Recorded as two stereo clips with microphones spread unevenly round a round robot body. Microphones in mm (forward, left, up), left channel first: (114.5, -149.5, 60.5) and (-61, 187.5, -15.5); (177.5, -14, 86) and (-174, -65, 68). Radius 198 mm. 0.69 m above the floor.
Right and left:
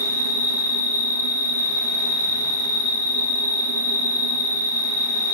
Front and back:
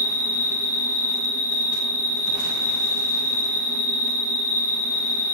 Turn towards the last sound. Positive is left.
turn(degrees=65)